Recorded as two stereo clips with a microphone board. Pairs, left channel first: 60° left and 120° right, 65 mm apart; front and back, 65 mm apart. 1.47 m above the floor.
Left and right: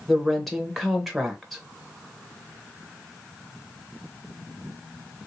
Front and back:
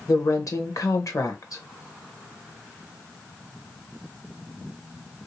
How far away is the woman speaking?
About 0.9 m.